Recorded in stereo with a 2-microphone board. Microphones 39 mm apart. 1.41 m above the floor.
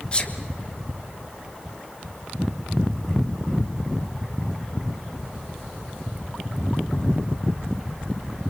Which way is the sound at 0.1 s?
30° left (ahead or behind).